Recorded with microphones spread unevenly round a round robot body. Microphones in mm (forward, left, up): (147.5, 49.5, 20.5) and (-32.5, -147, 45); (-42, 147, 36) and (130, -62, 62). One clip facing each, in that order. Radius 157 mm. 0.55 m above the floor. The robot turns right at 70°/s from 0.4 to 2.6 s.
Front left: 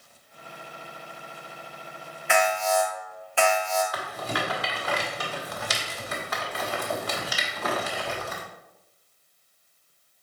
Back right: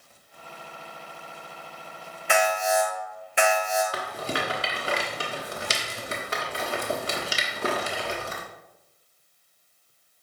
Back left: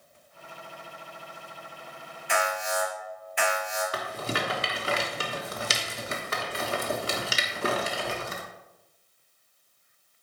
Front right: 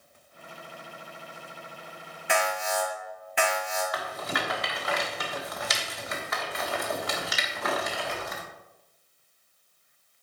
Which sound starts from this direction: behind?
A rattle, at 3.9 s.